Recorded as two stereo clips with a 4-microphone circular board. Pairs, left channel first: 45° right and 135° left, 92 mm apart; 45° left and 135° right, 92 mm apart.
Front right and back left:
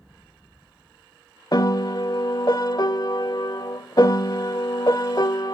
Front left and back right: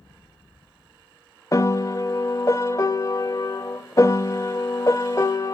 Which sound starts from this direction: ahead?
A piano, at 1.5 s.